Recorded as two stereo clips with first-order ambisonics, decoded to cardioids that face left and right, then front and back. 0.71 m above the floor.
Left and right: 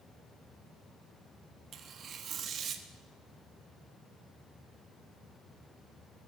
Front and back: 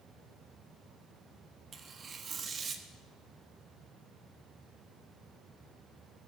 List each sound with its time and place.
1.7 s tearing paper: 130° right, 1.2 m